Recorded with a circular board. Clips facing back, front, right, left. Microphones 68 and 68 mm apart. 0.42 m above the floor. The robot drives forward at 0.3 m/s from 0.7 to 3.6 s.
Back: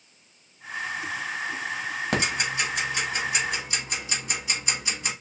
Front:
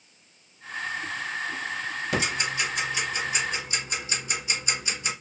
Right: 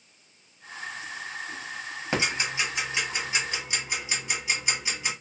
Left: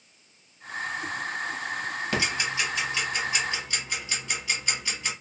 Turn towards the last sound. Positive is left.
turn(degrees=-165)